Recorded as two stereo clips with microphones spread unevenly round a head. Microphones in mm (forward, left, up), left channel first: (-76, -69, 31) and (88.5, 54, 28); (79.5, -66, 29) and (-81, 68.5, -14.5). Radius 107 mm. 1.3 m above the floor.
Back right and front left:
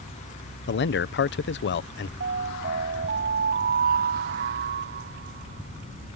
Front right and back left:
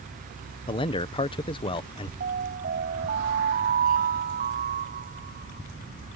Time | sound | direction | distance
0.7 | a man speaking | 115° right | ?
2.2 | an alarm | 85° left | ?